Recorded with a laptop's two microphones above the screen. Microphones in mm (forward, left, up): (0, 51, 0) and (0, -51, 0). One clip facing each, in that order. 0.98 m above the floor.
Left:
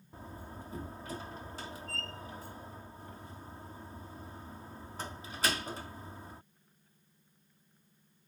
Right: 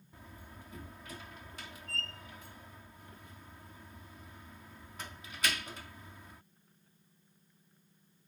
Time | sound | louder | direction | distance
0.1 | a door slam | left 7 dB | 35° left (ahead or behind) | ?